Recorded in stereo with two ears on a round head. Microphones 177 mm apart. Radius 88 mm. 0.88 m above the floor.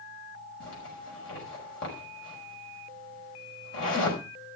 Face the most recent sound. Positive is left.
turn(degrees=70)  # may be behind; listen again after turning